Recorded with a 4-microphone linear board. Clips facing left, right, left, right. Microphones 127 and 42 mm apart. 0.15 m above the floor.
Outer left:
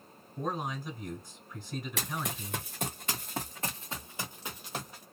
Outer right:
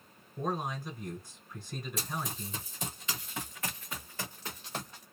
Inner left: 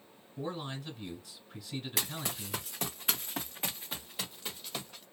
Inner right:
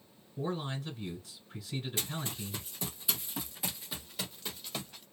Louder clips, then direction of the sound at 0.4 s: Even, inner right 2 dB; centre (ahead or behind).